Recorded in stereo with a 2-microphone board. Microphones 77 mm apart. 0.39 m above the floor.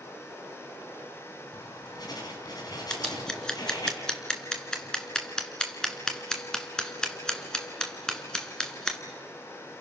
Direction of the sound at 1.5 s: 60° left (ahead or behind).